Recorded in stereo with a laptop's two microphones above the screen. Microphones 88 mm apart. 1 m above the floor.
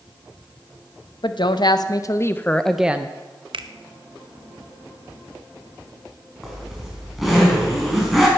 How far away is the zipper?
About 5 m.